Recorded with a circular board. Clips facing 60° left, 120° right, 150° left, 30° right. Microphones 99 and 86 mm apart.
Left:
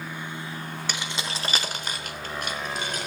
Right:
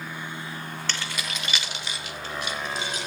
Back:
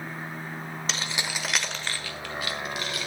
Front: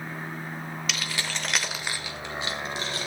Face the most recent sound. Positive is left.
turn(degrees=25)